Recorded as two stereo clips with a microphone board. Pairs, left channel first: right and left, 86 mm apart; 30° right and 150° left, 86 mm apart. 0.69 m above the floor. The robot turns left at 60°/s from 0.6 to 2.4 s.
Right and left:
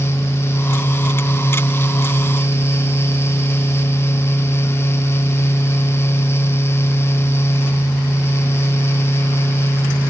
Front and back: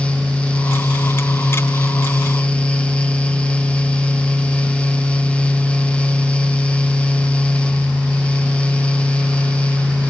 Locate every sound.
Only background noise.